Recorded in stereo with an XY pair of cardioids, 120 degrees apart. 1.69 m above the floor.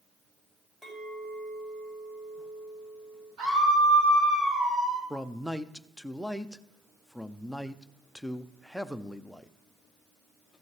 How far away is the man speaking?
About 0.6 m.